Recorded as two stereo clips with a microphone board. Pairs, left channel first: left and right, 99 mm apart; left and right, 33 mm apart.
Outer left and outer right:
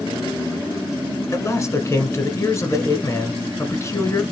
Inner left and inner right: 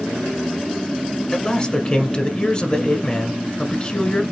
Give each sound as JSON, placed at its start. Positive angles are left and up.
{"t": 1.3, "sound": "a man speaking", "side_deg": 30, "distance_m": 1.2}